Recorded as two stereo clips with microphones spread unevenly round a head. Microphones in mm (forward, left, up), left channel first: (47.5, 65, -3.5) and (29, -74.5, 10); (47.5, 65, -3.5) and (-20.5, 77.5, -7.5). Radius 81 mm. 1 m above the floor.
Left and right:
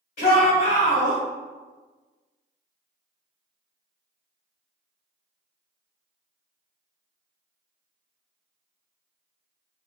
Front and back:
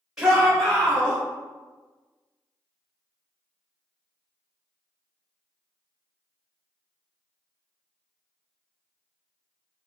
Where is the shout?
95° left, 1.5 m; by 1.2 s 25° left, 1.1 m.